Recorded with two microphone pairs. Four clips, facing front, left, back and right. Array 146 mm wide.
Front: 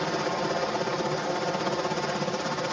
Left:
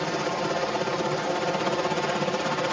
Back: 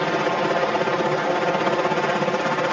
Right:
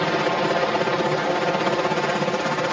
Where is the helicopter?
140° right; by 2.8 s 165° right.